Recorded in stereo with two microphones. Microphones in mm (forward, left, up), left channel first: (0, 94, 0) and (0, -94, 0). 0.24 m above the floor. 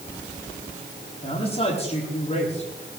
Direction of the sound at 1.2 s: 35° left (ahead or behind).